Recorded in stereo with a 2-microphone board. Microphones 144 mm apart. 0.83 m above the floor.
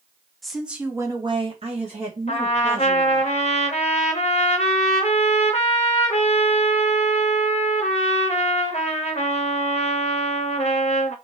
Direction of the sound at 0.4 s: Centre (ahead or behind).